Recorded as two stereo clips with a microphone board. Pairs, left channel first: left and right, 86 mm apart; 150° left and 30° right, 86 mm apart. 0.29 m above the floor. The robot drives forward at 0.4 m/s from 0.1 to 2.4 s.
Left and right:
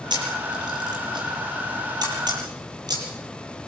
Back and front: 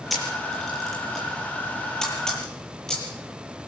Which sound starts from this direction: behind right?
A camera shutter, at 0.1 s.